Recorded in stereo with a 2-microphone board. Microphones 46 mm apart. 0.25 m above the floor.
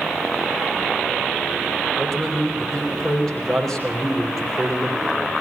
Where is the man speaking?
10° left (ahead or behind), 7.5 m.